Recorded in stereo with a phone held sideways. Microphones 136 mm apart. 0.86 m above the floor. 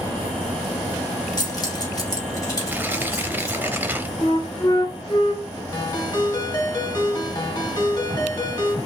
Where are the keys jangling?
30° left (ahead or behind), 1.4 m; by 3.6 s 25° left (ahead or behind), 2.5 m.